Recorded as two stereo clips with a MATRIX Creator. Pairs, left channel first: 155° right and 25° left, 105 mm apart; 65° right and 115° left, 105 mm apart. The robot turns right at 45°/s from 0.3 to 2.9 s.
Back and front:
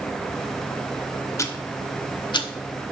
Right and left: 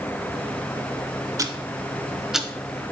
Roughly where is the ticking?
Behind left.